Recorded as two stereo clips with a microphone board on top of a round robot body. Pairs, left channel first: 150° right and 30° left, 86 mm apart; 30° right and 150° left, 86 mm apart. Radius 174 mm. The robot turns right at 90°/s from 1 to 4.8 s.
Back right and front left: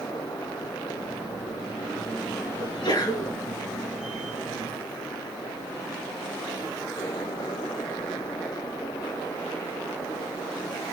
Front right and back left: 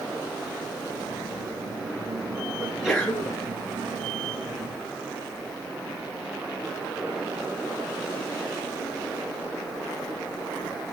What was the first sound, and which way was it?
A sneeze, 150° right.